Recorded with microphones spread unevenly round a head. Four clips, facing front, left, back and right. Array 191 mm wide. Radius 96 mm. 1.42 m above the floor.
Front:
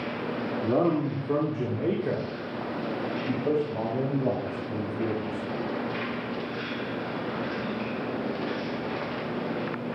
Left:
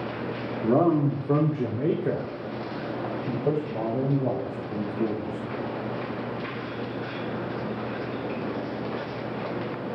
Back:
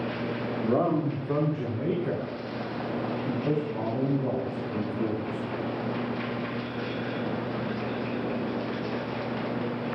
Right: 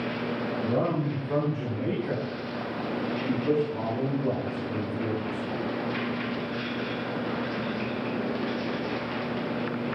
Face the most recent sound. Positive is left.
turn(degrees=50)